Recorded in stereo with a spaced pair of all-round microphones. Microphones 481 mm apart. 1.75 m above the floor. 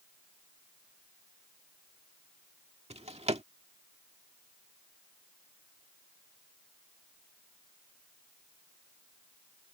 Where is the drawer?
15° right (ahead or behind).